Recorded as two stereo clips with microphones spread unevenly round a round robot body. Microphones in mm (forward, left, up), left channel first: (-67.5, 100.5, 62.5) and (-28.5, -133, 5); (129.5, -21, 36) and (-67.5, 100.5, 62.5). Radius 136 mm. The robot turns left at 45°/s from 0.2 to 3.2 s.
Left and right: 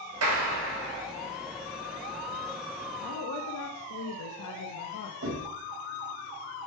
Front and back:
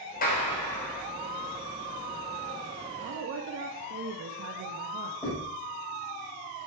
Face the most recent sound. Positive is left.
turn(degrees=-115)